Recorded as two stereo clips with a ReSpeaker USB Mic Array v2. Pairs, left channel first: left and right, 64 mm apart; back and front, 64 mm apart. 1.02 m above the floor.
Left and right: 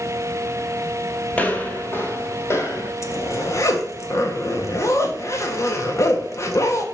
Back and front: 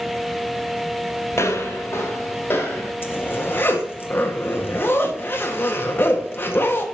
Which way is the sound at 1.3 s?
155° left.